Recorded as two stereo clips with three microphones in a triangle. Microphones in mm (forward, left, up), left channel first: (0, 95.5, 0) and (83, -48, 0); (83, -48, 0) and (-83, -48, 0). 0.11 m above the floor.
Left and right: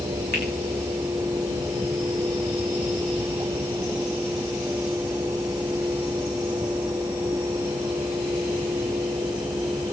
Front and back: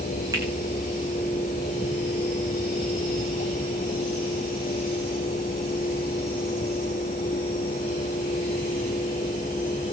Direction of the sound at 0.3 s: 110° left.